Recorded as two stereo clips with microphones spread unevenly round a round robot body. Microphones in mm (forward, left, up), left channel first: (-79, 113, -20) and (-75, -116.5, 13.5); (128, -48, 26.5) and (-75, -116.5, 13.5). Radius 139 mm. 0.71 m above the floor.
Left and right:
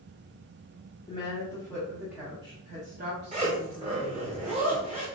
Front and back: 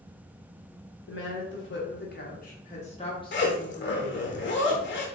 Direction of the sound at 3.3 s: 20° right.